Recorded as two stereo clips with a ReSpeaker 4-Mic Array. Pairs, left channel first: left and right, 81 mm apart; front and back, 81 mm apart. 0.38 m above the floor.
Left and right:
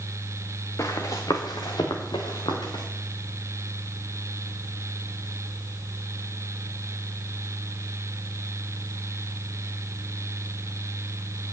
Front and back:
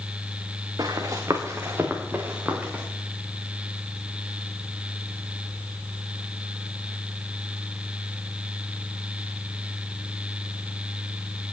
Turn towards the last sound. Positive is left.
turn(degrees=105)